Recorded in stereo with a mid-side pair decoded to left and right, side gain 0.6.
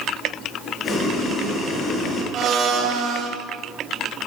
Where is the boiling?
30° left, 6 m.